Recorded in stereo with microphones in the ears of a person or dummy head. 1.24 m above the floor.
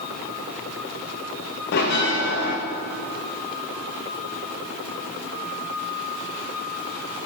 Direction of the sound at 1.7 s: 60° left (ahead or behind).